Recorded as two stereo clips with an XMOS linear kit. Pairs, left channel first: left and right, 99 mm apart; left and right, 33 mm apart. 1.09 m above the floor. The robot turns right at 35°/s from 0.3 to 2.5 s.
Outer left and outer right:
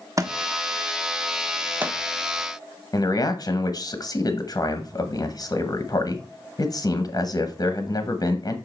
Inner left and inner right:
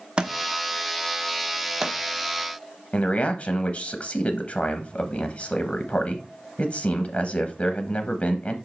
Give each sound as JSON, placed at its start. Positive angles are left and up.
{"t": 0.2, "sound": "a thud", "side_deg": -35, "distance_m": 0.7}
{"t": 2.9, "sound": "a man speaking", "side_deg": 45, "distance_m": 0.8}